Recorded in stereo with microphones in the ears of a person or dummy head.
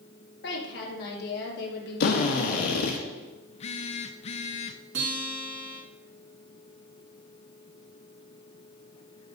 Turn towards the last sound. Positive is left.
turn(degrees=-70)  # may be behind; listen again after turning